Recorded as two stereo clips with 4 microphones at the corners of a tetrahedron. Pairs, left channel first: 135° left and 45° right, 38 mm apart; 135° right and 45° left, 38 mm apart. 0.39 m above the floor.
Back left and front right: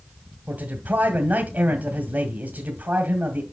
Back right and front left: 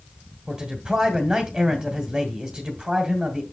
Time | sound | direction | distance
0.5 | a man speaking | 30° right | 1.4 m